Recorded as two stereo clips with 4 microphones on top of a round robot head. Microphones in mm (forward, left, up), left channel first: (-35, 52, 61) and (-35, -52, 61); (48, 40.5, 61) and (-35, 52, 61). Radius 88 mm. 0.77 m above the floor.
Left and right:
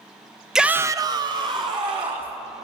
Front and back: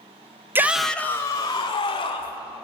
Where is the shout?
170° right, 0.6 m; by 2.4 s 45° right, 1.7 m.